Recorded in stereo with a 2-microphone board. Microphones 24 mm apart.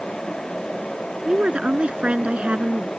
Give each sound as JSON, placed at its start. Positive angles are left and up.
{"t": 1.2, "sound": "a woman speaking", "side_deg": -50}